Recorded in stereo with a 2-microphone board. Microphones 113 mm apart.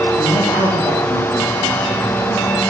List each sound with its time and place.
0.2 s a man speaking: 40° left (ahead or behind), 8 m; by 2.6 s 35° left (ahead or behind), 9.5 m